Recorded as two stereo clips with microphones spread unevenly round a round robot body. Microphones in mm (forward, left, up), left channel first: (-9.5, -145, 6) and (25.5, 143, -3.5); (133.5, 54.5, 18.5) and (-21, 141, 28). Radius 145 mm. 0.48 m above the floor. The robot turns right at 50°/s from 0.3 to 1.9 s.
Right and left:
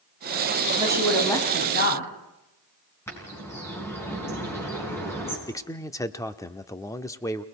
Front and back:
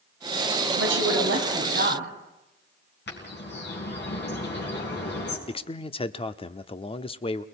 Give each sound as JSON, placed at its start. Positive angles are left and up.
{"t": 0.8, "sound": "a woman speaking", "azimuth_deg": 155, "distance_m": 4.0}
{"t": 3.1, "sound": "a bird", "azimuth_deg": -15, "distance_m": 5.5}
{"t": 5.5, "sound": "a man speaking", "azimuth_deg": -25, "distance_m": 0.9}